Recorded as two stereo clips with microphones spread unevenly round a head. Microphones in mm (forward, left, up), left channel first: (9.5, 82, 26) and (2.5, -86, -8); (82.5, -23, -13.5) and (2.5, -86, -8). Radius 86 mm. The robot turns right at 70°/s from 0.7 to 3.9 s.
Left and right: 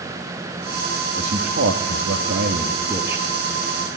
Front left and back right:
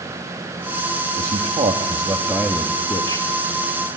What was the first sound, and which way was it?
A man speaking, 150° right.